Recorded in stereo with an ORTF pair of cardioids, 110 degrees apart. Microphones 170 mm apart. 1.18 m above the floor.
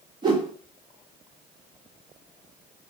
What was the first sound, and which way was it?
A whoosh, 30° right.